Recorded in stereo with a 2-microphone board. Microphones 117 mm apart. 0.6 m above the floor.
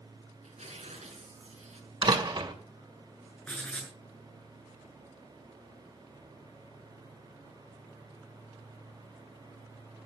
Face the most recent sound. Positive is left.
turn(degrees=10)  # may be behind; listen again after turning